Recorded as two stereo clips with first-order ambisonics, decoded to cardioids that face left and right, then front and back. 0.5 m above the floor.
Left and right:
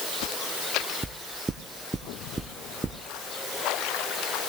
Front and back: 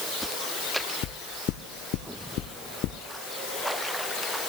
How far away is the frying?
I don't hear frying.